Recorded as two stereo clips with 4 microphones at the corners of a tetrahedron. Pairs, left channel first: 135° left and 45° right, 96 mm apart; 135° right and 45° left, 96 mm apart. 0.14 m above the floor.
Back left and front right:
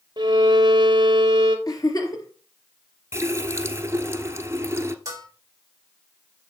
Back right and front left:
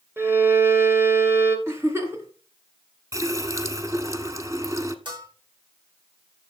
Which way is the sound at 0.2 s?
15° right.